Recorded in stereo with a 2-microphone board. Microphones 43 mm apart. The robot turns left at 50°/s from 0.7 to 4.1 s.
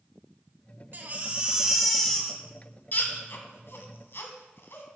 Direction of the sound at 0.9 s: 45° right (ahead or behind).